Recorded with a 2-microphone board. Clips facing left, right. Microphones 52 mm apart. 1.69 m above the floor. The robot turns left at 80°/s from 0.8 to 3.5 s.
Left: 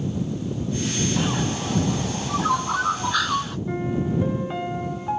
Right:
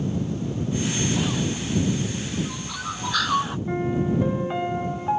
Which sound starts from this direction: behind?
A bird, at 1.2 s.